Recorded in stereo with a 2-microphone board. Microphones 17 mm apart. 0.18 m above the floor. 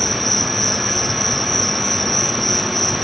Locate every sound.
0.0 s an insect: 10° left (ahead or behind)